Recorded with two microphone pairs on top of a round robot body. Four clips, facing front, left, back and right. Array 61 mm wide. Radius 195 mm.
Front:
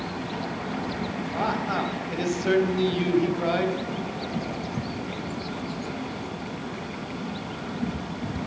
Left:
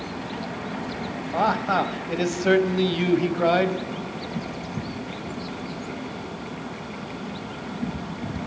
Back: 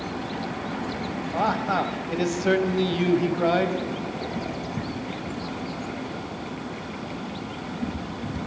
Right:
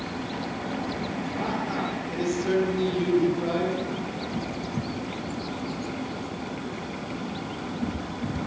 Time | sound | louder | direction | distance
1.3 | a man speaking | left 10 dB, back 3 dB | 105° left | 3.5 m